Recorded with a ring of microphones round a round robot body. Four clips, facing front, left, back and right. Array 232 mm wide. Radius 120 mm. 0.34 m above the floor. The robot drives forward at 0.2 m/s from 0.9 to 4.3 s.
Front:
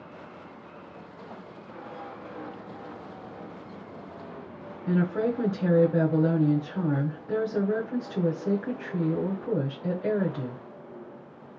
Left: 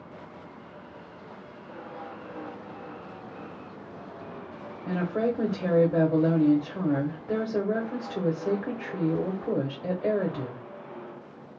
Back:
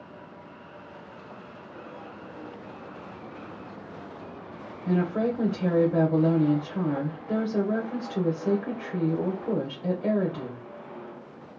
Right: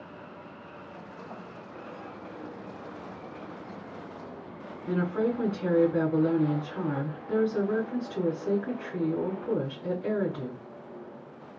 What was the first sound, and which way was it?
A woman speaking, 120° left.